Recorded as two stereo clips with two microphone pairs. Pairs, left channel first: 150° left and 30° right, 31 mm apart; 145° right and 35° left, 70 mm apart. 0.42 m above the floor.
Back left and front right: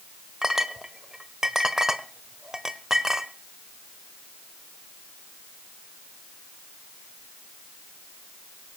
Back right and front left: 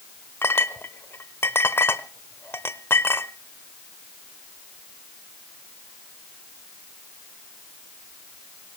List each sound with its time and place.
0.4 s a clink: 105° right, 0.9 m